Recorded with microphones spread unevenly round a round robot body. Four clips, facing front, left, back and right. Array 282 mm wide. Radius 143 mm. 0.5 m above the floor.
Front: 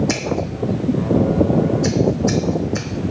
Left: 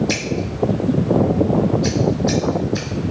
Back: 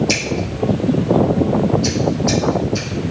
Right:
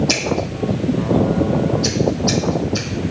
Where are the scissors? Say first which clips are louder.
Right 2 dB, even; 15° right, 0.7 m.